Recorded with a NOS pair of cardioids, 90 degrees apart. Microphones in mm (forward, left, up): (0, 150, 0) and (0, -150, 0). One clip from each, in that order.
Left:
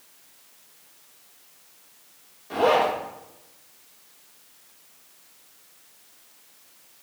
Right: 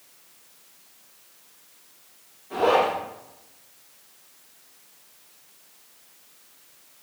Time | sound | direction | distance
2.5 | a zipper | 55° left | 2.5 m